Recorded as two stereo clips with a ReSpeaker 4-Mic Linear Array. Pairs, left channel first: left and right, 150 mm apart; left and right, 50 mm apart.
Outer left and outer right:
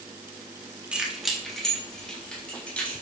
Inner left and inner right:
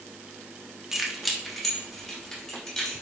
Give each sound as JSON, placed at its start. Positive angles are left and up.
{"t": 0.9, "sound": "keys jangling", "side_deg": -5, "distance_m": 1.3}